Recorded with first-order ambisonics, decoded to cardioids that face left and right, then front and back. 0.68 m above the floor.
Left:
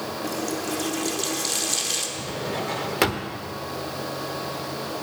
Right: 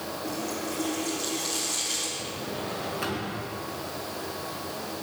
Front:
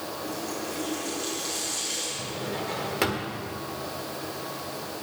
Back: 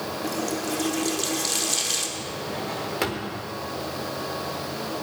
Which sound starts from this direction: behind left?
A running tap, at 0.2 s.